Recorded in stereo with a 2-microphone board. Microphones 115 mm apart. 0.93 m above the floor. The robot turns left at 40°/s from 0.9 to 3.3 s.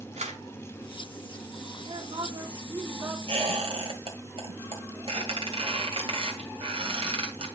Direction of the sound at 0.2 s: 90° right.